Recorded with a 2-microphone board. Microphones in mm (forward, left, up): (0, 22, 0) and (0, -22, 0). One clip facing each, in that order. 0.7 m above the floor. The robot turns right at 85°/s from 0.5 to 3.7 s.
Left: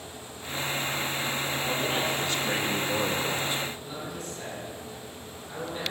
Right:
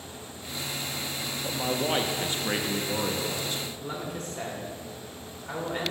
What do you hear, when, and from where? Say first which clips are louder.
1.4 s a man speaking: right 5 dB; 20° right (ahead or behind), 0.5 m; by 3.6 s 20° left (ahead or behind), 0.5 m
3.8 s a man speaking: right 2 dB; 55° right (ahead or behind), 1.8 m